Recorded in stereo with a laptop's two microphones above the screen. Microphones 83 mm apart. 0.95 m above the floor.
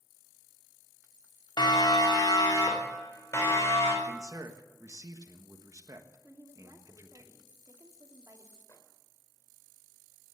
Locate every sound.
1.6 s a siren: 70° left (ahead or behind), 3 m; by 3.9 s 30° left (ahead or behind), 5 m
4.0 s a man speaking: 45° right (ahead or behind), 1.4 m
6.2 s a woman speaking: 45° right (ahead or behind), 2 m
8.7 s a microwave: 45° left (ahead or behind), 2.5 m